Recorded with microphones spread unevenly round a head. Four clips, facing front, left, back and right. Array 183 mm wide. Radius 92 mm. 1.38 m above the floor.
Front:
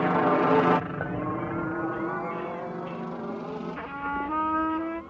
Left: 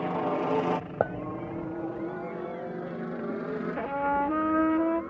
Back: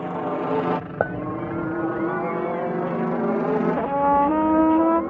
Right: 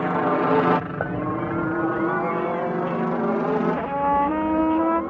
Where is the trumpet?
165° right.